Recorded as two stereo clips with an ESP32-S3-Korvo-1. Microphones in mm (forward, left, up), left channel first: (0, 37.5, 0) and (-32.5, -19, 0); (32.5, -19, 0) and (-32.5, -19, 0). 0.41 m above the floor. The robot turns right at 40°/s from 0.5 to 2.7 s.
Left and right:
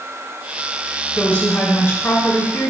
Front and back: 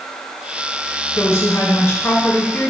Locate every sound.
1.1 s a woman speaking: straight ahead, 2.0 m; by 2.7 s 65° left, 2.0 m